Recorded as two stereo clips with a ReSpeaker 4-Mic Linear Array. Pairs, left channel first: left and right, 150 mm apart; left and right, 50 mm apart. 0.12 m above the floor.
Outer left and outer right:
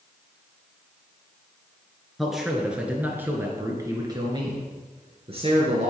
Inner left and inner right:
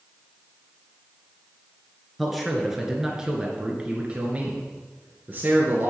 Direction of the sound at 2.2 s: Centre (ahead or behind).